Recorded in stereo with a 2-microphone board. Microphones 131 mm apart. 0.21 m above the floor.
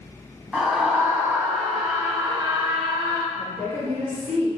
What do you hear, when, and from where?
0.5 s a scream: 5° right (ahead or behind), 1.5 m; by 3.2 s 40° right (ahead or behind), 3 m
3.4 s a woman speaking: 65° right (ahead or behind), 3.5 m